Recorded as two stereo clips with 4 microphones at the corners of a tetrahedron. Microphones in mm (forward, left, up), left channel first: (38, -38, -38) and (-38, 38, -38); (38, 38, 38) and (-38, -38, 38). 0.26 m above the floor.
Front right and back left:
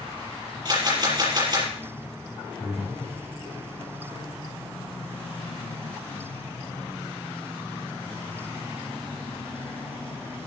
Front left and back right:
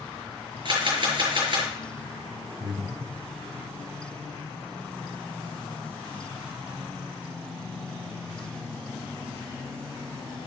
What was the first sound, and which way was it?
A camera shutter, straight behind.